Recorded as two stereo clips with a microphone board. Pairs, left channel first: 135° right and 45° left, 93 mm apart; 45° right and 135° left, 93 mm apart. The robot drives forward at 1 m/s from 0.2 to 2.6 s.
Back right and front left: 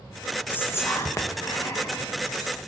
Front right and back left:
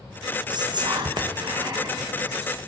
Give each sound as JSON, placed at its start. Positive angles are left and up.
{"t": 0.5, "sound": "whispering", "azimuth_deg": 155, "distance_m": 0.8}